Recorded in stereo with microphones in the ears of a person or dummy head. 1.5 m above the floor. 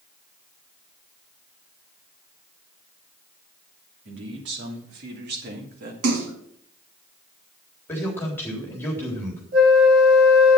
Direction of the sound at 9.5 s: 55° right (ahead or behind).